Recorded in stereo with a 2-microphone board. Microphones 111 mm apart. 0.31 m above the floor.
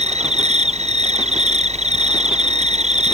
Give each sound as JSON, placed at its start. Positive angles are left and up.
{"t": 0.0, "sound": "an insect", "side_deg": -80}